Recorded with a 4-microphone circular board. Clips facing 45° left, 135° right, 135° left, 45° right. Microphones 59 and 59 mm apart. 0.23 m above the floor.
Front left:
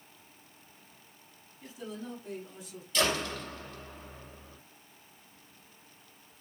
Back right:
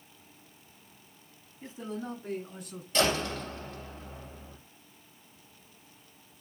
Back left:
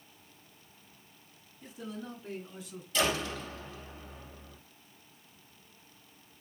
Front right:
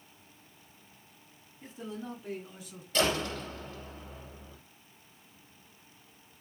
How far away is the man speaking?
About 2.0 m.